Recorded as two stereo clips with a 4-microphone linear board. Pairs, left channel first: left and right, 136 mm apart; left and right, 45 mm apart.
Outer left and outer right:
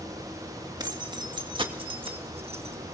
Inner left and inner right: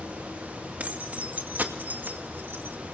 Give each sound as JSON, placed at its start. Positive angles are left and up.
{"t": 0.8, "sound": "keys jangling", "side_deg": -30, "distance_m": 2.5}